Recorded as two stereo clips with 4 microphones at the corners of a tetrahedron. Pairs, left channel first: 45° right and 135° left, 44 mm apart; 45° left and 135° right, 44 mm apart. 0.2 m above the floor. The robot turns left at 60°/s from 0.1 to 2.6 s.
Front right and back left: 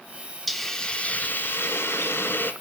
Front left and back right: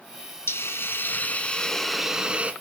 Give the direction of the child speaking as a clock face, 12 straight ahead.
I don't hear a child speaking.